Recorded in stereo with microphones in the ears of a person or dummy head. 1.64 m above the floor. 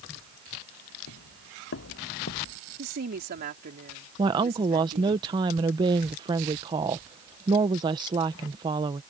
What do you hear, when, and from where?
1.1 s footsteps: 70° left (ahead or behind); by 2.6 s 60° left (ahead or behind)
2.8 s a woman speaking: 55° right (ahead or behind)
4.2 s a woman speaking: 25° right (ahead or behind)